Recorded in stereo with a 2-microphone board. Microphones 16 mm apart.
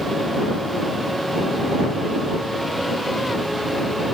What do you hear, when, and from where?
Only background noise.